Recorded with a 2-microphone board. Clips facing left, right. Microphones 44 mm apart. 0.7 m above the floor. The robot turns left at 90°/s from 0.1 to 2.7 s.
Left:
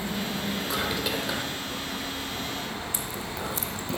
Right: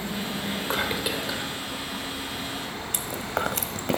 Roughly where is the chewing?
Right.